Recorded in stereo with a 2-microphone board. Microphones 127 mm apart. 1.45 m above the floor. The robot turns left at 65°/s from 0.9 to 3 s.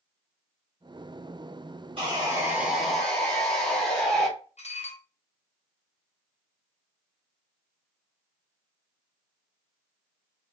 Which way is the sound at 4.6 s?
60° left (ahead or behind).